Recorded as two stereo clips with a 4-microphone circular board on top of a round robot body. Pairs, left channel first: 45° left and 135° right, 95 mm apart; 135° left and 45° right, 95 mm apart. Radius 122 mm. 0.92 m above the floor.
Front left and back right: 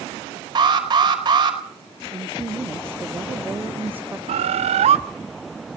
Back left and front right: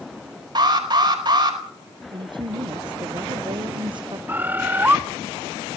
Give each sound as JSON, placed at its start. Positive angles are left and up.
{"t": 0.6, "sound": "an alarm", "azimuth_deg": -90, "distance_m": 4.5}
{"t": 2.1, "sound": "a woman speaking", "azimuth_deg": -65, "distance_m": 0.9}
{"t": 4.3, "sound": "a bird", "azimuth_deg": -115, "distance_m": 0.7}